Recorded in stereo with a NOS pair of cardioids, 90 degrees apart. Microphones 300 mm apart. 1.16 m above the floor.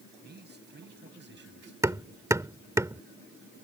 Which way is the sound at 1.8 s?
10° right.